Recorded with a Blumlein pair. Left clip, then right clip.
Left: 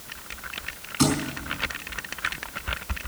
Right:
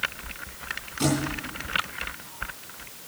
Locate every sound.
1.0 s a thud: 65° left, 5 m